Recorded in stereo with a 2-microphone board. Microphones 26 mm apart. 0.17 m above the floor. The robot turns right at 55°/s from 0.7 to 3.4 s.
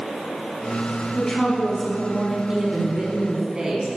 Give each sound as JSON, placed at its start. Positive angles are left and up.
{"t": 1.1, "sound": "a woman speaking", "side_deg": 25, "distance_m": 1.3}
{"t": 2.5, "sound": "a woman speaking", "azimuth_deg": -110, "distance_m": 1.4}